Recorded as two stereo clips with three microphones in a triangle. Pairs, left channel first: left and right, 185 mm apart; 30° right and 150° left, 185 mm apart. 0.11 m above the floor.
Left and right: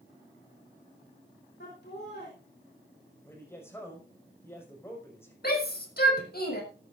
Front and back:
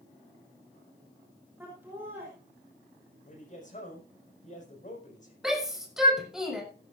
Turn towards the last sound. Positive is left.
turn(degrees=60)